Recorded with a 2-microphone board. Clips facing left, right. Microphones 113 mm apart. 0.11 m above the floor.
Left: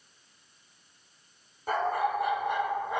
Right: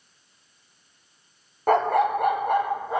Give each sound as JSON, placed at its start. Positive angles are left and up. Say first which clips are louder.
{"t": 1.7, "sound": "a dog barking", "louder": "right 8 dB", "side_deg": -60, "distance_m": 0.7}